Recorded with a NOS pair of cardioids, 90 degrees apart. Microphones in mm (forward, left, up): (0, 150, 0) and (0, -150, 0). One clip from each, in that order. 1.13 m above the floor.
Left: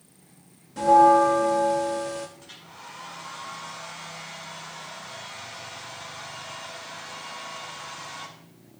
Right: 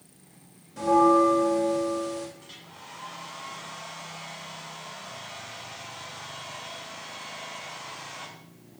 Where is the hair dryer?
25° left, 5.5 m.